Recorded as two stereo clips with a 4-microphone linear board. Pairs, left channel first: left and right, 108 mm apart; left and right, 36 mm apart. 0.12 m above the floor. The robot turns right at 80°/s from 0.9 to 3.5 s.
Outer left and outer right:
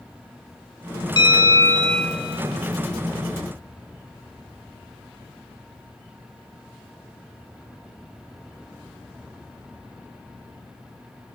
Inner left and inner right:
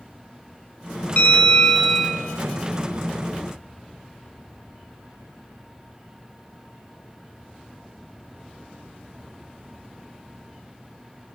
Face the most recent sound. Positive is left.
turn(degrees=-60)